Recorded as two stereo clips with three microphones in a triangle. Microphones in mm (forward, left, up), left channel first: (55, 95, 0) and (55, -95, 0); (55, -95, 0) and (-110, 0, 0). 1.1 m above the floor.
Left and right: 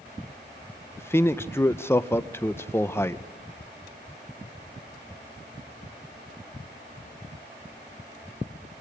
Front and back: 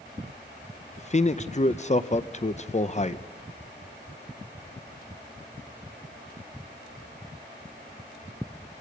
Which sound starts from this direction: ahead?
A man speaking, at 1.0 s.